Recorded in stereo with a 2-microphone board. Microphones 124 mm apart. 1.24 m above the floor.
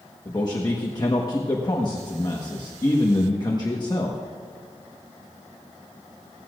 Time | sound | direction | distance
0.2 | a man speaking | 35° left (ahead or behind) | 1.3 m